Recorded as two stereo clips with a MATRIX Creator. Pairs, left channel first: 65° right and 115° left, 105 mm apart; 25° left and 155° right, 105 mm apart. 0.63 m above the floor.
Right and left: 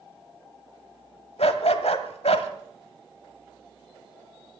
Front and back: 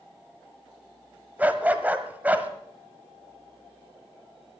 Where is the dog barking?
85° right, 1.0 m.